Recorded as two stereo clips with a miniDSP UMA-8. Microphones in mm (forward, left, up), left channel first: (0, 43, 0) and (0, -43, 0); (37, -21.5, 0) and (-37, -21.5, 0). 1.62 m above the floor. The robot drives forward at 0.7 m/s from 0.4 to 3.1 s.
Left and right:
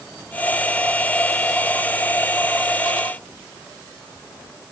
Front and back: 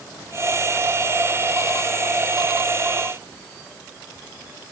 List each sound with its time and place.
Only background noise.